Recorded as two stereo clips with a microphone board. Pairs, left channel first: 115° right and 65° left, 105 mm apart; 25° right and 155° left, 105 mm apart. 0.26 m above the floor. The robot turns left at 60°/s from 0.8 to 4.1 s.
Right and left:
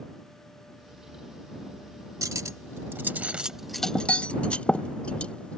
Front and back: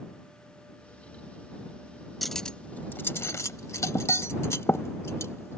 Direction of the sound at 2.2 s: 65° left.